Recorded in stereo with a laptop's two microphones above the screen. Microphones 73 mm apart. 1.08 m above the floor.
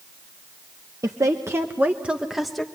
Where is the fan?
I don't hear a fan.